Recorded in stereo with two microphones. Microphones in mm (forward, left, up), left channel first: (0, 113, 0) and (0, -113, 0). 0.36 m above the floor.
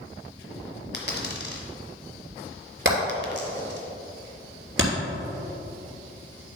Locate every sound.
0.9 s a dropped coin: 50° left (ahead or behind), 1.4 m
2.9 s hammering: 60° right (ahead or behind), 3 m